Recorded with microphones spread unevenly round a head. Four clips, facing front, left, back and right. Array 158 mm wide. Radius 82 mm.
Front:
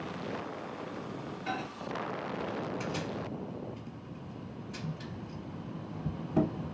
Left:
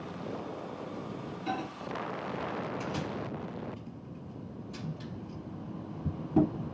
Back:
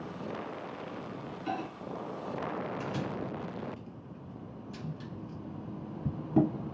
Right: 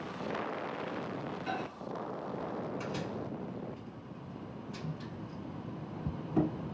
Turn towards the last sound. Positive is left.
turn(degrees=145)